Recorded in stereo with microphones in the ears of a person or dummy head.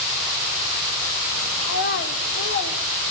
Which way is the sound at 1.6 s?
50° left (ahead or behind).